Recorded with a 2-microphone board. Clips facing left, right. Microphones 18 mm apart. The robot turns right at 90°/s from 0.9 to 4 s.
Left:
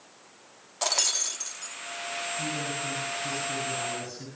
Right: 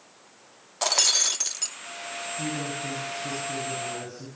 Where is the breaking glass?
165° right, 0.6 m; by 1.8 s 90° right, 0.6 m.